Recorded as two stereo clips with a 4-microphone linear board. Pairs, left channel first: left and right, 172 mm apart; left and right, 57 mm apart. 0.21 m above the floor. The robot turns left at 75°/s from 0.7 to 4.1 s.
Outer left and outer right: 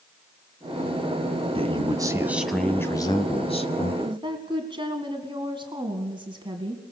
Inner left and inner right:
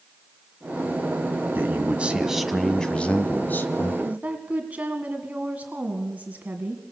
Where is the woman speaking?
25° right (ahead or behind), 2 m; by 6.8 s 30° right (ahead or behind), 2 m.